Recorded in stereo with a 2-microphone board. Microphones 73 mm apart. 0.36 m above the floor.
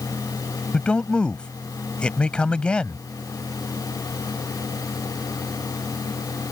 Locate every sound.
0.7 s a man speaking: 15° left (ahead or behind)